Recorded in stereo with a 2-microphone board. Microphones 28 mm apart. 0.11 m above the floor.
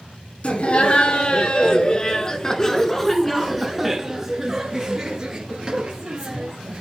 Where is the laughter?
45° left (ahead or behind), 1.9 m; by 6.8 s 45° right (ahead or behind), 2 m.